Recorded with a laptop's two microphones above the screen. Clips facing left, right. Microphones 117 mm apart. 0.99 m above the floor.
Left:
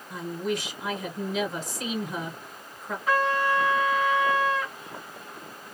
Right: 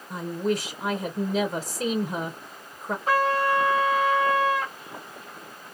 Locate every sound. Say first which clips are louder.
0.1 s a woman speaking: right 3 dB; 35° right (ahead or behind), 0.7 m
3.1 s a trumpet: right 2 dB; 40° right (ahead or behind), 1.2 m